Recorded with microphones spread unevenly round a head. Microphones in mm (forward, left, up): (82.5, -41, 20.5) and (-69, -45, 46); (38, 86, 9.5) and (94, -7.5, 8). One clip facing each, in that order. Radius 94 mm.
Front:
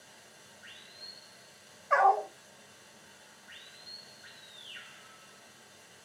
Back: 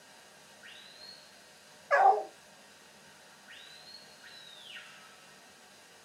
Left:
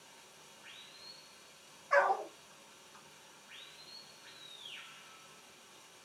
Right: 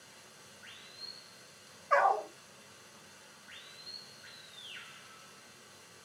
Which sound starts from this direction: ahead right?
Running water, at 0.0 s.